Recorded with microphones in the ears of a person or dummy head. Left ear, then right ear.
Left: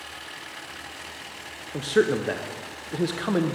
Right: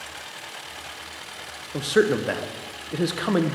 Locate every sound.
1.7 s a man speaking: 10° right (ahead or behind), 0.5 m